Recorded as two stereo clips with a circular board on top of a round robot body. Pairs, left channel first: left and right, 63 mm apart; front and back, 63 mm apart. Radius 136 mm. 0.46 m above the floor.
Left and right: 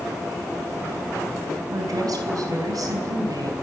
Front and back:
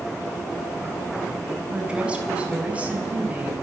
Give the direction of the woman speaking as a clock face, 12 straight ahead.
4 o'clock.